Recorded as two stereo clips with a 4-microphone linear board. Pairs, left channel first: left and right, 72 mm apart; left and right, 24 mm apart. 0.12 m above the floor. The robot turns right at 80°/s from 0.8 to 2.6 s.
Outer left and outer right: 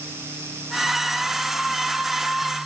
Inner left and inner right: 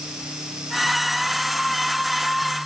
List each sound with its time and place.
Only background noise.